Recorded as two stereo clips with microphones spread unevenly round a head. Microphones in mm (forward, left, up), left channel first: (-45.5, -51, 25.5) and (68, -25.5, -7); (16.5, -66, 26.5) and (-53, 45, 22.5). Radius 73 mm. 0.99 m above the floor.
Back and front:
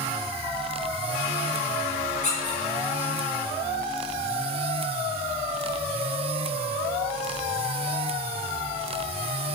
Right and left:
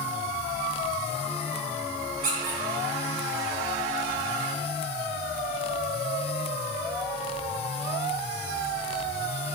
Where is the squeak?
145° left, 3 m.